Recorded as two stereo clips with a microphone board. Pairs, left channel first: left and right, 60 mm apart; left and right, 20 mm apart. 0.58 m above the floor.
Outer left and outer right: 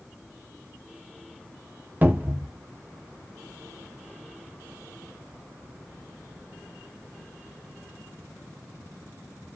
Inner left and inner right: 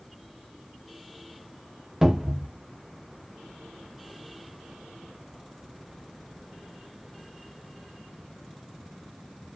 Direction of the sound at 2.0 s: 30° right (ahead or behind).